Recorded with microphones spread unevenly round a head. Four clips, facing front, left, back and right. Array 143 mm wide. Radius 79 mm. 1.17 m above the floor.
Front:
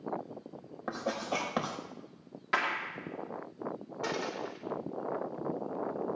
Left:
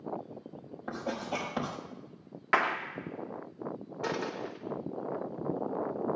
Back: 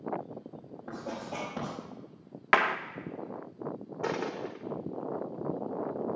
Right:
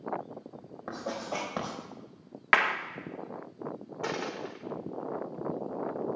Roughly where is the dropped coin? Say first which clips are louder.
Even, back 3 dB; behind.